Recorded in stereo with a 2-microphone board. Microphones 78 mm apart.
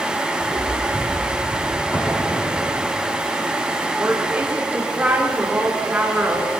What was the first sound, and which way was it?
Footsteps, 20° right (ahead or behind).